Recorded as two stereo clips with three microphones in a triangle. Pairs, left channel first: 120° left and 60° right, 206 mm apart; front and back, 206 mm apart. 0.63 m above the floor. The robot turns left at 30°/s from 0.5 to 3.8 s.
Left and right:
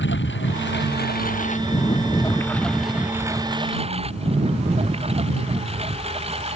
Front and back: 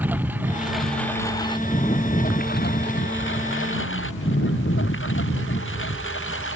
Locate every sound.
0.0 s a lawn mower: 100° left; by 6.6 s straight ahead